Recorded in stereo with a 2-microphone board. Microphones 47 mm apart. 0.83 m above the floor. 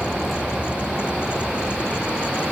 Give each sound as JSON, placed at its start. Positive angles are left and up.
{"t": 0.0, "sound": "a vehicle", "side_deg": -5}